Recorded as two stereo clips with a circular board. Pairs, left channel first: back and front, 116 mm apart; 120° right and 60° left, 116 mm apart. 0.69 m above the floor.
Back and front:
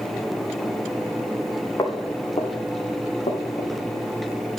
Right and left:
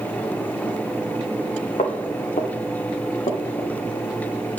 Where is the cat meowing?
I don't hear a cat meowing.